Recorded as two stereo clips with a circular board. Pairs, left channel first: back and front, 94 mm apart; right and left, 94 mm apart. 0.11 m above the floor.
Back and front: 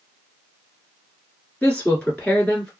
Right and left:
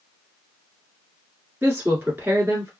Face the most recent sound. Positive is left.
turn(degrees=125)